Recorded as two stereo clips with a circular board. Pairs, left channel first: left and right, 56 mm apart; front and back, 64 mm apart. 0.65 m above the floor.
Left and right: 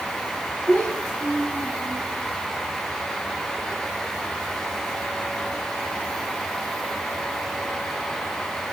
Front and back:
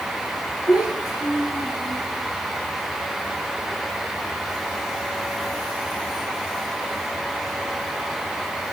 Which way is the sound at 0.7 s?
20° left.